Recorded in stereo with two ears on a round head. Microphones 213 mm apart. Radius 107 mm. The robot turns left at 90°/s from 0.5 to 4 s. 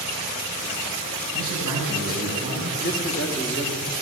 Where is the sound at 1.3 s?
55° right, 5.5 m; by 2.7 s 175° right, 5.5 m.